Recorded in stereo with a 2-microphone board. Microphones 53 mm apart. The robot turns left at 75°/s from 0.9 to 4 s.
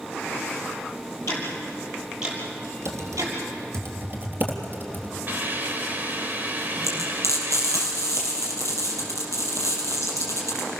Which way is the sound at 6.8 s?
85° right.